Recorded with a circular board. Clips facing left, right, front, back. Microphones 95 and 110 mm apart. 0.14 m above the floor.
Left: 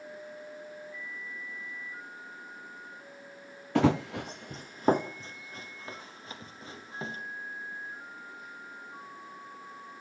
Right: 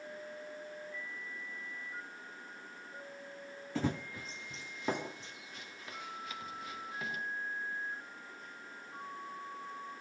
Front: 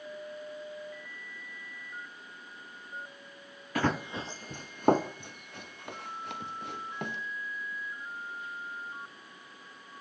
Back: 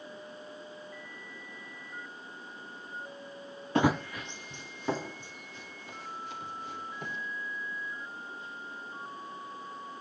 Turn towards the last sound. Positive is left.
turn(degrees=30)